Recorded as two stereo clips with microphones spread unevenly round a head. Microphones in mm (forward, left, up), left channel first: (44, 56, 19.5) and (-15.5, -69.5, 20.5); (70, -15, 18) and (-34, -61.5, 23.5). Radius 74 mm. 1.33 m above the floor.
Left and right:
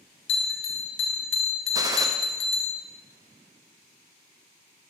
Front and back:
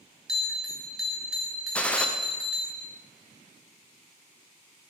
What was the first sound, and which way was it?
A bell, 120° left.